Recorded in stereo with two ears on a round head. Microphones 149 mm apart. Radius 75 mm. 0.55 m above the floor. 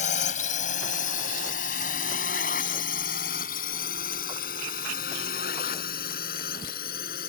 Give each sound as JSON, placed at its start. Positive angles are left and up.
{"t": 0.0, "sound": "a drone", "side_deg": 45}